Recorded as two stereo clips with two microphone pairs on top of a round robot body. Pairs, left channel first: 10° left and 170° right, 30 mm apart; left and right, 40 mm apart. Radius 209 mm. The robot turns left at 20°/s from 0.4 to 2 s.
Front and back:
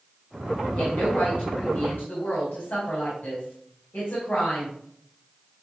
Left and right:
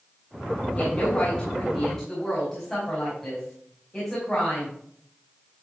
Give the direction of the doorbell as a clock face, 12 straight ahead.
I don't hear a doorbell.